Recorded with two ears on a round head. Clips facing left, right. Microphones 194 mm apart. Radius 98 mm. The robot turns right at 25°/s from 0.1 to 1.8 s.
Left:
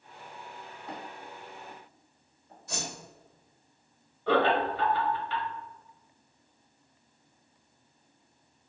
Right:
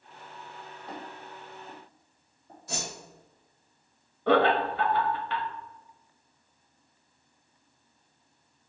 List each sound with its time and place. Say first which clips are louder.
0.9 s footsteps: even; centre (ahead or behind), 1.5 m; by 2.6 s 55° right (ahead or behind), 2.0 m
2.7 s a whoosh: right 1 dB; 65° right (ahead or behind), 1.6 m
4.3 s laughter: right 2 dB; 50° right (ahead or behind), 0.8 m